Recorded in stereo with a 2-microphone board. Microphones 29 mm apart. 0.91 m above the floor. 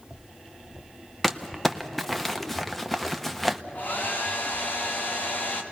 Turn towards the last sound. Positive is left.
turn(degrees=75)  # may be behind; listen again after turning